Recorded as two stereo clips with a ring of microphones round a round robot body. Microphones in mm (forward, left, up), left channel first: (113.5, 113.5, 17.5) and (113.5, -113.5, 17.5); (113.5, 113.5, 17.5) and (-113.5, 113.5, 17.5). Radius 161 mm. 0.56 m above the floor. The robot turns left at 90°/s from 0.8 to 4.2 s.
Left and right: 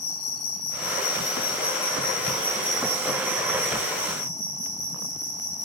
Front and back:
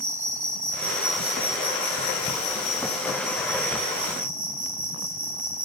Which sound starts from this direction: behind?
An insect, at 0.0 s.